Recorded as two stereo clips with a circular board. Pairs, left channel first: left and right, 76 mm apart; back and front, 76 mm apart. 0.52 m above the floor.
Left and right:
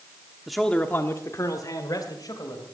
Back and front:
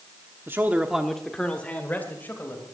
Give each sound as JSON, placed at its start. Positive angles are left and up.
{"t": 0.5, "sound": "a man speaking", "azimuth_deg": -5, "distance_m": 1.0}